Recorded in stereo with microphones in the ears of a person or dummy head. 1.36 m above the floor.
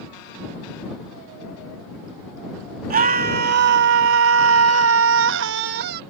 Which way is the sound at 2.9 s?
45° right (ahead or behind).